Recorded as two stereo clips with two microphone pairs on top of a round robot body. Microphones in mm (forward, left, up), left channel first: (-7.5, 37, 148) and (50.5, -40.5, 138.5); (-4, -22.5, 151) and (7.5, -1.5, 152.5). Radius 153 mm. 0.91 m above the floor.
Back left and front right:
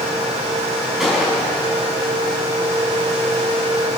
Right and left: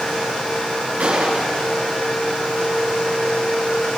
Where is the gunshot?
35° left, 5 m.